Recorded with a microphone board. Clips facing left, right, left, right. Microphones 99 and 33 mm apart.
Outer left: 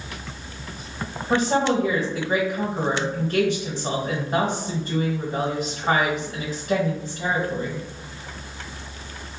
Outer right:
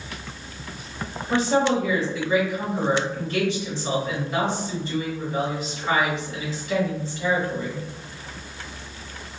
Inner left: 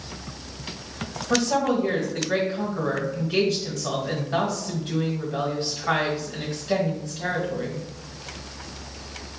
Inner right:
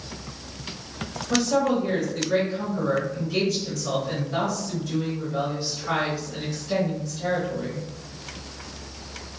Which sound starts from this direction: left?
A woman speaking, at 1.3 s.